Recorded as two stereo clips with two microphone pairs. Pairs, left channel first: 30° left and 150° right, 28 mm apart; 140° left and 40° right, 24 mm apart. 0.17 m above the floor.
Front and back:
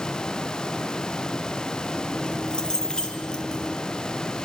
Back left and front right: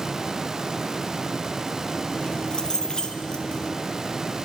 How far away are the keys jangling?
About 3.5 m.